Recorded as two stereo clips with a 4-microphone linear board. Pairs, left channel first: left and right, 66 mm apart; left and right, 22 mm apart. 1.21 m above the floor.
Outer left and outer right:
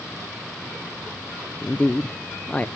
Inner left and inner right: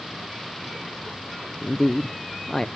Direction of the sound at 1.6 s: 15° left (ahead or behind).